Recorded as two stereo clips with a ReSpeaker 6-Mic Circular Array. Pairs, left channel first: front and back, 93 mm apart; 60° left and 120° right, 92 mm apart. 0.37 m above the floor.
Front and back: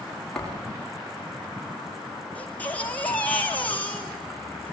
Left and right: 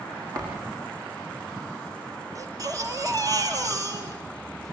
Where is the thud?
80° right, 9.5 m.